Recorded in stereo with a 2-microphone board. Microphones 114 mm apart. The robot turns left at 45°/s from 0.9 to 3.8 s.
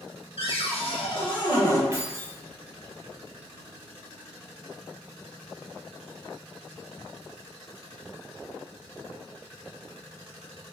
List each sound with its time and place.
0.4 s a cupboard door: 70° left, 0.6 m; by 1.8 s 30° left, 0.6 m
1.9 s keys jangling: 25° right (ahead or behind), 0.7 m; by 2.4 s 20° right (ahead or behind), 0.7 m